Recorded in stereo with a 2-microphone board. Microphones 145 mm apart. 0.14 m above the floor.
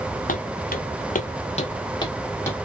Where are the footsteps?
75° left (ahead or behind), 0.9 m; by 2.5 s 15° left (ahead or behind), 1.2 m.